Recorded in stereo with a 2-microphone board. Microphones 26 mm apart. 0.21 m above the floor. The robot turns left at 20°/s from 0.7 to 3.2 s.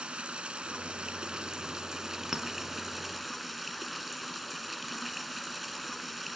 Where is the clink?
20° right (ahead or behind), 1.1 m; by 2.5 s 25° right (ahead or behind), 1.1 m.